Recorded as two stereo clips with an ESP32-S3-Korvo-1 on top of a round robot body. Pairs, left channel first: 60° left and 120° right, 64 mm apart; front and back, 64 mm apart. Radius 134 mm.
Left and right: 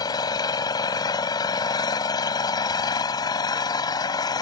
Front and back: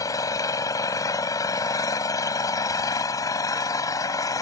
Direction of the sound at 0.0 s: 40° left.